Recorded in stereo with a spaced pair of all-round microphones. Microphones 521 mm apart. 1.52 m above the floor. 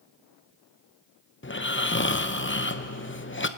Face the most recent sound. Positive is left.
turn(degrees=20)  # may be behind; listen again after turning